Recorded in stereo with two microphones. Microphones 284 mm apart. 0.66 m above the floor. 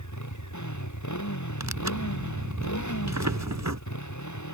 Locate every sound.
0.0 s a motorcycle: 90° left
1.6 s tearing paper: 80° right